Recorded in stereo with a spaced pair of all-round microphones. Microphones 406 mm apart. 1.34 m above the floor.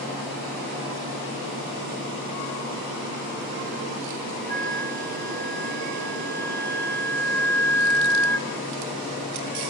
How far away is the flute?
About 2.5 m.